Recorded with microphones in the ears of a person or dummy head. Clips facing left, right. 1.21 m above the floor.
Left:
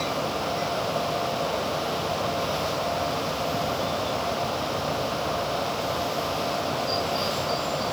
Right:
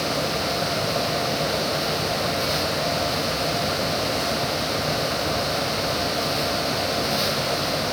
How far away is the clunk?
I don't hear a clunk.